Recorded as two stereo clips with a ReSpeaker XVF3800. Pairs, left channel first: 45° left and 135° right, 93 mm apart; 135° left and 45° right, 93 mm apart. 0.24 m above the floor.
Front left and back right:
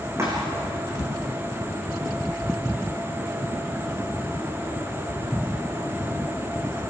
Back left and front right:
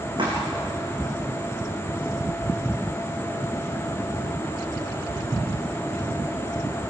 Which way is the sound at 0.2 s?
75° right.